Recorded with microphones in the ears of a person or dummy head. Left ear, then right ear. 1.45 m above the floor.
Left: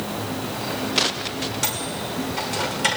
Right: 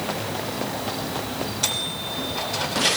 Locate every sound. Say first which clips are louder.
1.6 s a microwave: right 1 dB; 35° left (ahead or behind), 2 m